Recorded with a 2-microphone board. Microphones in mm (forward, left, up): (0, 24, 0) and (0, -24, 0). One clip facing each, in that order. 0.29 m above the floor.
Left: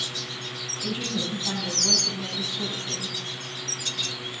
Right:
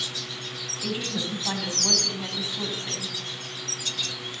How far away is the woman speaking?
About 2.5 m.